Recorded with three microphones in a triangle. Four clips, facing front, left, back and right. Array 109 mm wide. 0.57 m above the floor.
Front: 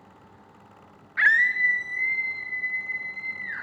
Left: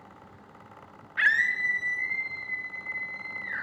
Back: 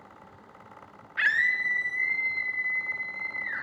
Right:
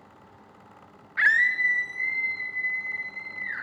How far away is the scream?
About 0.7 m.